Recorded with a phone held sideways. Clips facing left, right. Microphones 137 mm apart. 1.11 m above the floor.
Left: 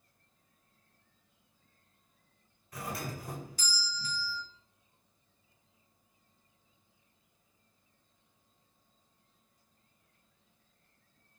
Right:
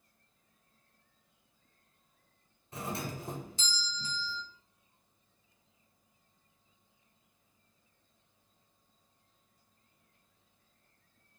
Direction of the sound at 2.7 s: 25° right (ahead or behind).